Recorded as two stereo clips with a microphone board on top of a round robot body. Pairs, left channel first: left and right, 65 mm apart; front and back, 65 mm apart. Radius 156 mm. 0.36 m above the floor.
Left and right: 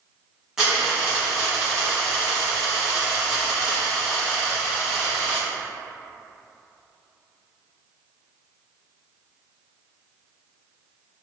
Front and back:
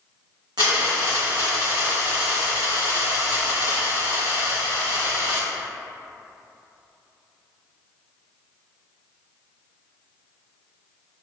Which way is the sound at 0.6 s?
170° right.